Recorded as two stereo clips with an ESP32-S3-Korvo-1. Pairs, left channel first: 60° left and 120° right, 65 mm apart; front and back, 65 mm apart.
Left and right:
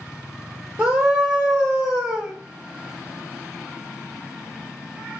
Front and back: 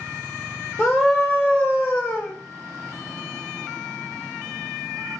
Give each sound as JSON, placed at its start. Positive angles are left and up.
{"t": 0.8, "sound": "a scream", "azimuth_deg": -80, "distance_m": 1.4}